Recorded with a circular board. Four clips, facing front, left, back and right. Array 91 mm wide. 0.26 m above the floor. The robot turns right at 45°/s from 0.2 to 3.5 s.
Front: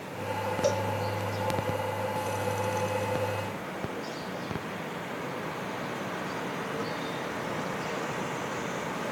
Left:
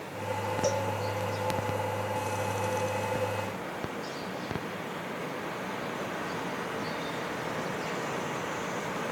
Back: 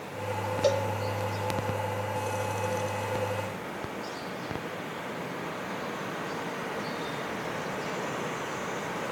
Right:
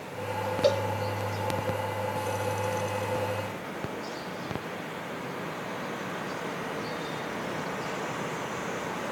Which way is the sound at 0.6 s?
110° right.